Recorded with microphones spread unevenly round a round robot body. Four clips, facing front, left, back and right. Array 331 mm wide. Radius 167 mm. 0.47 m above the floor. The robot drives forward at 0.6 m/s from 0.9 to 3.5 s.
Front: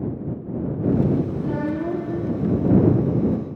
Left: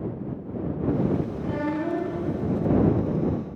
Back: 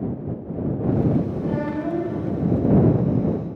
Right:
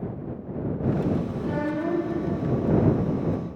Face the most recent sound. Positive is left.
turn(degrees=5)